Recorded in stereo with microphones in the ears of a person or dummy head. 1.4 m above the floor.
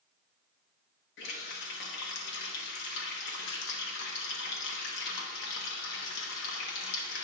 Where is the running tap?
70° left (ahead or behind), 1.3 m.